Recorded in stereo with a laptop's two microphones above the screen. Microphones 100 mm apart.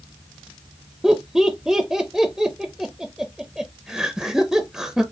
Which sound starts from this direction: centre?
Laughter, at 1.0 s.